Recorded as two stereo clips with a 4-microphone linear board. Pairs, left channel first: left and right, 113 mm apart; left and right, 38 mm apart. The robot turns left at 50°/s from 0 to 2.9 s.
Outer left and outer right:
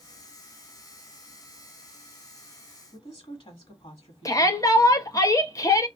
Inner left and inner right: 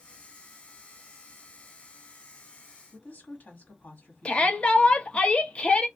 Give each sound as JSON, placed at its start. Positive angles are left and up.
{"t": 2.9, "sound": "a woman speaking", "side_deg": 55, "distance_m": 1.2}
{"t": 4.2, "sound": "a shout", "side_deg": 30, "distance_m": 0.6}